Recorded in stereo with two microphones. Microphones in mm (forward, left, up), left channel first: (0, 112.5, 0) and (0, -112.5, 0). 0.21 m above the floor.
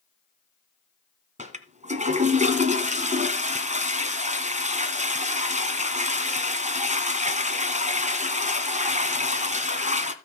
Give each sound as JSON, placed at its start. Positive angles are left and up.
{"t": 1.4, "sound": "a toilet flushing", "side_deg": -30, "distance_m": 1.6}